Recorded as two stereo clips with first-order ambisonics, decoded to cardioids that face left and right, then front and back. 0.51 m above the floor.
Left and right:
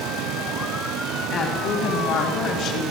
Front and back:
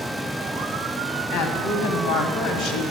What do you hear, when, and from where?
1.3 s a woman speaking: 15° left, 3 m; by 2.8 s 40° left, 2.5 m